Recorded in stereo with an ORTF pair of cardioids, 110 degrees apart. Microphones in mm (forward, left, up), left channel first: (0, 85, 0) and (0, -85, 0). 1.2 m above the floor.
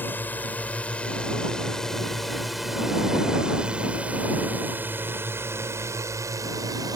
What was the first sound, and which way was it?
A drone, 10° left.